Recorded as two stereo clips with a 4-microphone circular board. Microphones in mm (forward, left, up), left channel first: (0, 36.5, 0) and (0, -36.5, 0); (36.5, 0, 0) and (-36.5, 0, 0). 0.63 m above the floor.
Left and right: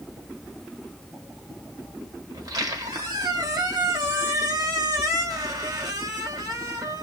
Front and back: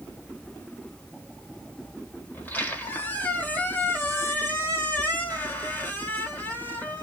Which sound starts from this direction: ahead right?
A squeak, at 2.3 s.